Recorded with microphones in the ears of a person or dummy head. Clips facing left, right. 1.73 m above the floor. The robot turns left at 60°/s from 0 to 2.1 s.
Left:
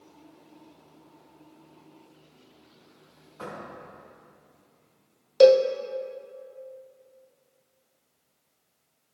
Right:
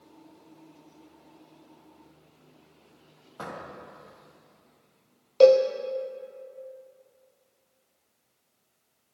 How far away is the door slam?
About 2 m.